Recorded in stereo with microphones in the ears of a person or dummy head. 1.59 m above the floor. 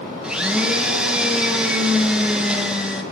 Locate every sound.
0.2 s a blender: 5° right (ahead or behind), 1.9 m